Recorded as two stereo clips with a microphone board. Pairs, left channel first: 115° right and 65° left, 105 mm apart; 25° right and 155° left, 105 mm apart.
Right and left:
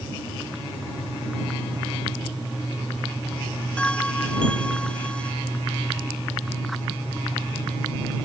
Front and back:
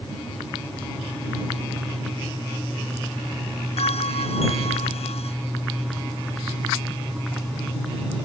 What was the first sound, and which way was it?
A bell, 30° right.